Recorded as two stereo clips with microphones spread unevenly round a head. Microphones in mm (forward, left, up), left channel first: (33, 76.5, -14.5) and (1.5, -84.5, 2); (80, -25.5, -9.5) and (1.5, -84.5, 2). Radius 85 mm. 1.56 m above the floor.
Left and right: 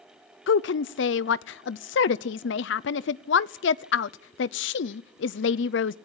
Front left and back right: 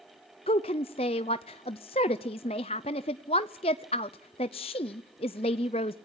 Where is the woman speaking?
80° left, 0.5 m.